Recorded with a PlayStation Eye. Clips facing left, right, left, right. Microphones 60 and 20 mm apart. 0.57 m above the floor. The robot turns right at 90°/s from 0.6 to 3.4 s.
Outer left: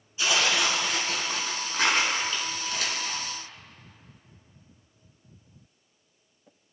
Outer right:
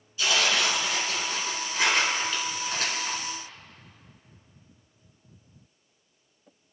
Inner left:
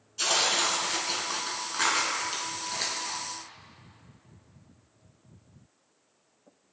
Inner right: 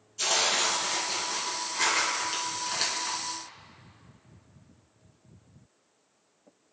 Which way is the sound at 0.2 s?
25° left.